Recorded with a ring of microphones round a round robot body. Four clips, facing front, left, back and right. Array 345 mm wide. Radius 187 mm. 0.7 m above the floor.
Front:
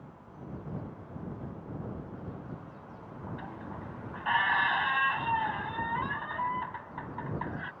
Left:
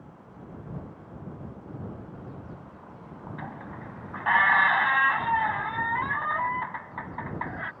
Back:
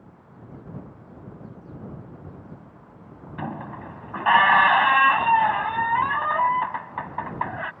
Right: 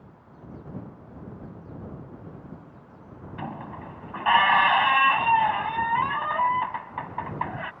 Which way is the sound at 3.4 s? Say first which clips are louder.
Right 7 dB, back 9 dB; 170° right.